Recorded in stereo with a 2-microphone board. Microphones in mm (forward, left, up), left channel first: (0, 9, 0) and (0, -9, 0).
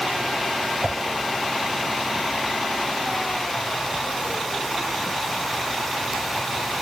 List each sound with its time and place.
0.8 s a whoosh: 60° right (ahead or behind), 0.6 m